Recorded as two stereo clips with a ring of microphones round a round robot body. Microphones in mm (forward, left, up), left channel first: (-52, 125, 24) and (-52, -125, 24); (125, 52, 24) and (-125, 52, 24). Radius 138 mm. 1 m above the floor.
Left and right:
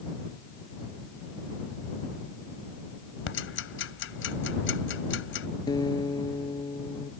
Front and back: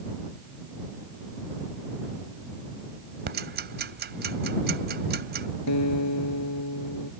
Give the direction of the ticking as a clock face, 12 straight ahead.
8 o'clock.